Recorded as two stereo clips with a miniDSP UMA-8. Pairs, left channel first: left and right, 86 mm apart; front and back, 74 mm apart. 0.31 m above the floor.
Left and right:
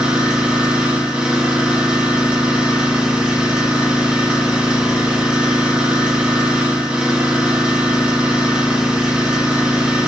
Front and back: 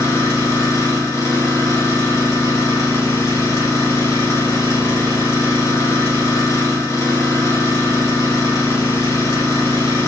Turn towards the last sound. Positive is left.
turn(degrees=-20)